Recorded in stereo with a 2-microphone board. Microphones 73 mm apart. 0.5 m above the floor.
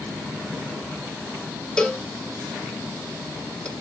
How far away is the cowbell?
About 1.1 m.